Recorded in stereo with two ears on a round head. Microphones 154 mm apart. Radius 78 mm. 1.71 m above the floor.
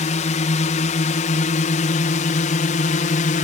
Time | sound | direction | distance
0.0 | a drone | 45° left (ahead or behind) | ?